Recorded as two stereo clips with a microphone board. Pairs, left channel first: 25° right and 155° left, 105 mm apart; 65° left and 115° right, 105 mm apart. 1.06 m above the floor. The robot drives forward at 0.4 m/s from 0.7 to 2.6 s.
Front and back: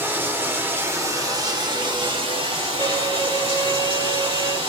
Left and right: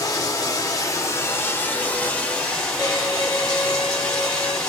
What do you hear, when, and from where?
0.0 s running water: 100° left, 0.8 m; by 4.7 s 145° left, 1.2 m
2.8 s a violin: 125° left, 1.8 m